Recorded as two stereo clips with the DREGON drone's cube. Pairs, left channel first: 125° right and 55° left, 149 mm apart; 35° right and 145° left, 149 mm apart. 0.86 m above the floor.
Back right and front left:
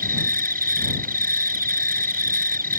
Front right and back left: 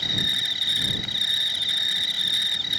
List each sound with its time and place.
0.0 s an insect: 55° left